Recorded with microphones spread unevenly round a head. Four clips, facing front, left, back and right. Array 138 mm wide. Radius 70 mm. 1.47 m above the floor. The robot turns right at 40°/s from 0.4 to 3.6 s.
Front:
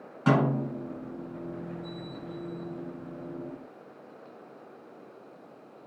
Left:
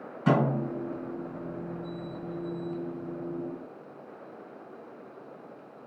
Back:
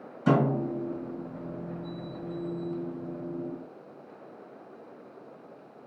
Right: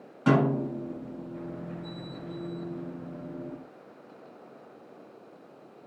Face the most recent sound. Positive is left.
turn(degrees=110)